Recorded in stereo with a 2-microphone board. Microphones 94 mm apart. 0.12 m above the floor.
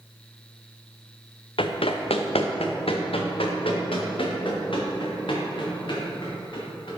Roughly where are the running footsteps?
Left.